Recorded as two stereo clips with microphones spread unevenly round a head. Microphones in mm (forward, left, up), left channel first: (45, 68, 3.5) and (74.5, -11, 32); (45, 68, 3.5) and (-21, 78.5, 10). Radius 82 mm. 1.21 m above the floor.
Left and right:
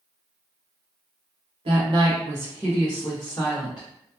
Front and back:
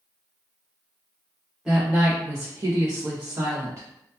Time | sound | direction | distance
1.6 | a woman speaking | 100° right | 0.9 m